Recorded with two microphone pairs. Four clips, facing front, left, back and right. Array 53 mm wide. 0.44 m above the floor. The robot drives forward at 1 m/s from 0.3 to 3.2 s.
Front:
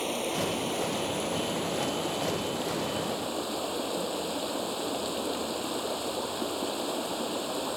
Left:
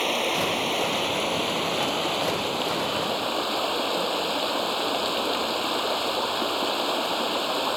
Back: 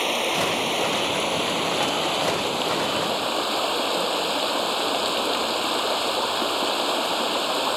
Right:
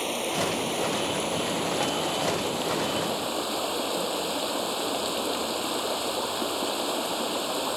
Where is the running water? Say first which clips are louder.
Left 3 dB, back 7 dB; 150° left; by 7.8 s 155° left.